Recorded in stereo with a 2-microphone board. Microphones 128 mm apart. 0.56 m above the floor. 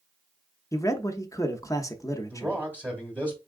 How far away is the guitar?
No guitar in this recording.